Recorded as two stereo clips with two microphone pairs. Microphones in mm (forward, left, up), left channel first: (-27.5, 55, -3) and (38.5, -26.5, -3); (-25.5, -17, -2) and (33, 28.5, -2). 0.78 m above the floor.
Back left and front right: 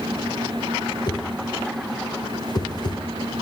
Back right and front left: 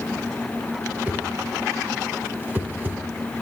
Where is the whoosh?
95° left, 1.0 m.